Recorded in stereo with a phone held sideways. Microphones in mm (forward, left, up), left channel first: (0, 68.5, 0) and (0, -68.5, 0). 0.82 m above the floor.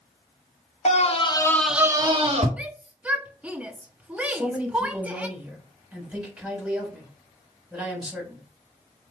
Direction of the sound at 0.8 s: 55° left (ahead or behind).